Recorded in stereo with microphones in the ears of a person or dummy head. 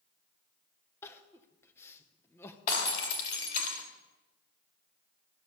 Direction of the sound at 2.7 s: 45° left (ahead or behind).